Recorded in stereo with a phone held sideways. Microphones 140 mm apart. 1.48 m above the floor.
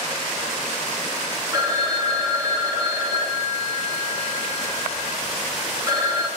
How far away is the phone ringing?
About 2 m.